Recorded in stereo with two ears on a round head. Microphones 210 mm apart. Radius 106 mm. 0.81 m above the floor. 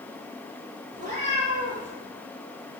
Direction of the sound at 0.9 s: 35° right (ahead or behind).